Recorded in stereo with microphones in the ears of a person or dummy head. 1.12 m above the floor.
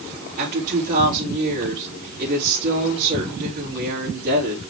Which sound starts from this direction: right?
A woman speaking, at 0.4 s.